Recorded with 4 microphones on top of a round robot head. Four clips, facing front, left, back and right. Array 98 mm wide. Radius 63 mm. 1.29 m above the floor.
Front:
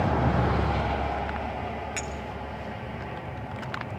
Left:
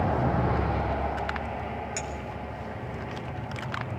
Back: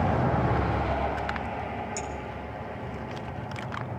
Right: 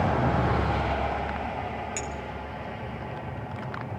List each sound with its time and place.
2.0 s a clink: 30° left, 1.3 m